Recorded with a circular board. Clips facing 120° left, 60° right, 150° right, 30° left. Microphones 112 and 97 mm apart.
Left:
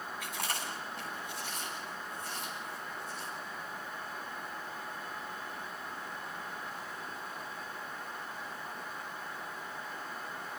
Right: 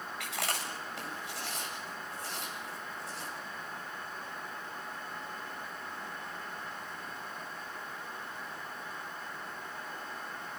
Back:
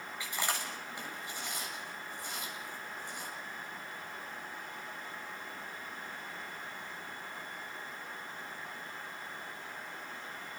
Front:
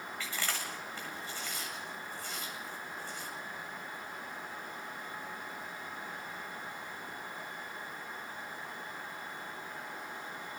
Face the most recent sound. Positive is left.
turn(degrees=-75)